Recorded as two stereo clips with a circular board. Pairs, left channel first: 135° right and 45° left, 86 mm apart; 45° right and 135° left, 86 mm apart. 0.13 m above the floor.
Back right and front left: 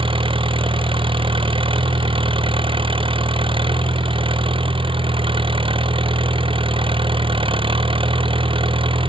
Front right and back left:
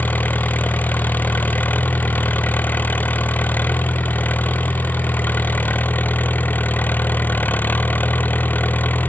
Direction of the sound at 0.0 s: 25° left.